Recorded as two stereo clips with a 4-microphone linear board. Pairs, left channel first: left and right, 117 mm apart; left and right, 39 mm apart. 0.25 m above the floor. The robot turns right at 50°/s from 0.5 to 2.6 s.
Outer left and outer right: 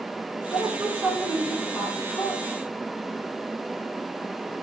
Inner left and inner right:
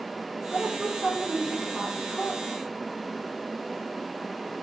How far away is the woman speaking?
About 2.5 m.